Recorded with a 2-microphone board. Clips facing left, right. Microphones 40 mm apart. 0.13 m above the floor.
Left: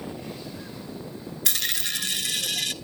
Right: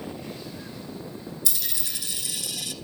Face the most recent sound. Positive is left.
turn(degrees=55)  # may be behind; listen again after turning